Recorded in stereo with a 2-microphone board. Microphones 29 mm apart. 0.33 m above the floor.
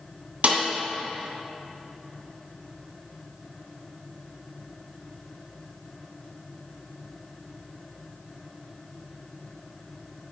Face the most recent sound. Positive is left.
turn(degrees=-60)  # may be behind; listen again after turning